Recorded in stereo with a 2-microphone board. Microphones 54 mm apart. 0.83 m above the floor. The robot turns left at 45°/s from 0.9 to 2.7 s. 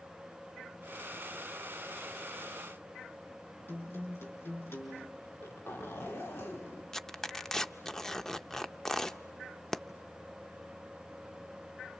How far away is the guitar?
About 6 m.